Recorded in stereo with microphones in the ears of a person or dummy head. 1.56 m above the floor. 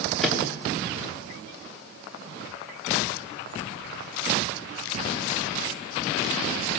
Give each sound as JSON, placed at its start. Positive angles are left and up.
{"t": 0.2, "sound": "a microwave", "side_deg": 0, "distance_m": 3.0}